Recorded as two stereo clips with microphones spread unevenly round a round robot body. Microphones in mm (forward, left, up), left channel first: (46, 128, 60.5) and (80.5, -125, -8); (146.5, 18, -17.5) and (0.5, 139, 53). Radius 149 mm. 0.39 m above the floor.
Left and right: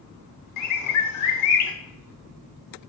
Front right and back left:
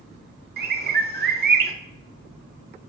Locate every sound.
0.6 s a bird: 95° left, 0.7 m